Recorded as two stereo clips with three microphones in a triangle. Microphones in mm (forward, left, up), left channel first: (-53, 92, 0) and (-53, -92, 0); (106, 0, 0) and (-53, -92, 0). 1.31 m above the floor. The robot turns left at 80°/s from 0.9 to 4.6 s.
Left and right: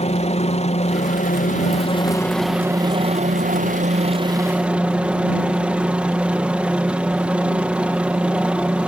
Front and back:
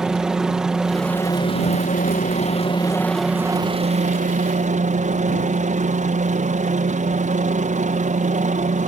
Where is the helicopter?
125° left; by 8.9 s 170° right.